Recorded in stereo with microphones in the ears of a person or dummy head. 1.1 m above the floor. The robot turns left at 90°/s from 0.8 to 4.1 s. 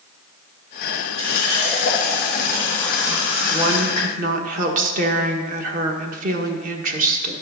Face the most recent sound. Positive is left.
turn(degrees=-60)